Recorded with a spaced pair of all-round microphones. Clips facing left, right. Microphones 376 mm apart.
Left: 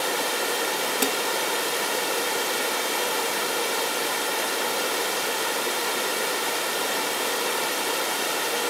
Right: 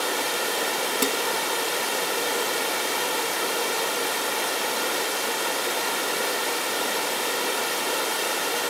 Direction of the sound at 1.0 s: 10° right (ahead or behind).